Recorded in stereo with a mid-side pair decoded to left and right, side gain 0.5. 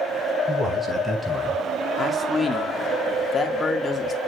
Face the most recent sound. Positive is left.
turn(degrees=30)